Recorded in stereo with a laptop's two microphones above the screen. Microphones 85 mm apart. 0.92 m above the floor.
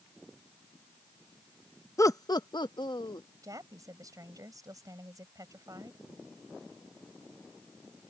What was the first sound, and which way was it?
Laughter, 35° left (ahead or behind).